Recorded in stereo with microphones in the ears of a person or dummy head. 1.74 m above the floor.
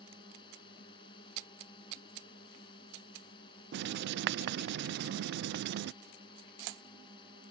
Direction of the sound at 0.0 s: 30° left (ahead or behind).